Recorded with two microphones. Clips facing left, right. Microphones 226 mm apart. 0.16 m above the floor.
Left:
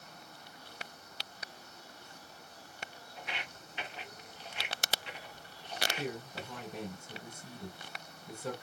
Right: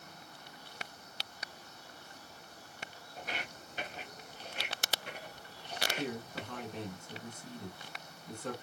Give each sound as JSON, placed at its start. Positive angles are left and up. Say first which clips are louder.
{"t": 3.2, "sound": "footsteps", "louder": "right 3 dB", "side_deg": -40, "distance_m": 1.4}
{"t": 6.0, "sound": "a man speaking", "louder": "right 3 dB", "side_deg": 10, "distance_m": 1.9}